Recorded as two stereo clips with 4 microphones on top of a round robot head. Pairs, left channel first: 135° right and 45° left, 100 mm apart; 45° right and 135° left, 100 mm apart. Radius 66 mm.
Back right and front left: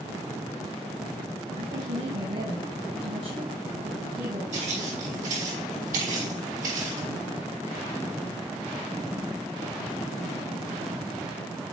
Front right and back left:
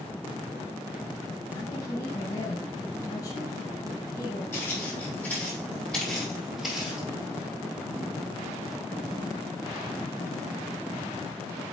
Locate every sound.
1.6 s a woman speaking: 10° left, 5.5 m
4.5 s footsteps: 20° left, 3 m; by 7.1 s 50° left, 2.5 m